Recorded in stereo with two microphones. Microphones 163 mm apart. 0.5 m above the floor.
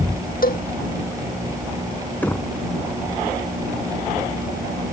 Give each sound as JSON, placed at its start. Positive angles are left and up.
{"t": 0.4, "sound": "a cowbell", "side_deg": 65}
{"t": 2.2, "sound": "knocking", "side_deg": 10}